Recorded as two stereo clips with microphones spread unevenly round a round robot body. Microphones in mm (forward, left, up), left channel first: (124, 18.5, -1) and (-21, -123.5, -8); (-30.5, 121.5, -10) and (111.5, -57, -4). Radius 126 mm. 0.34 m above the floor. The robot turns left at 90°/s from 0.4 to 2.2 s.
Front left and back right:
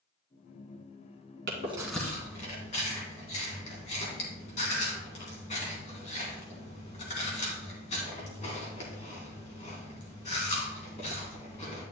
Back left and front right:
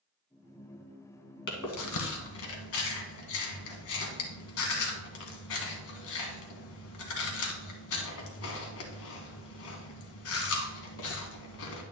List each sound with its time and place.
1.5 s chewing: 175° left, 1.7 m; by 11.8 s 110° left, 1.7 m